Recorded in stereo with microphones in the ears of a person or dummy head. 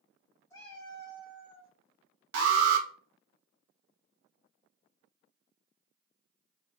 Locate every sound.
0.5 s a cat meowing: 25° left (ahead or behind), 1.5 m; by 1.7 s 50° left (ahead or behind), 1.4 m
2.3 s an alarm: 80° right, 0.8 m